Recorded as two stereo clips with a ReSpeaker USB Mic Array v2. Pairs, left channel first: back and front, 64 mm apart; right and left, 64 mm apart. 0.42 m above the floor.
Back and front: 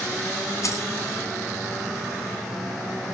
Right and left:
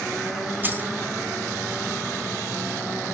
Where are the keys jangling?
150° left, 3 m.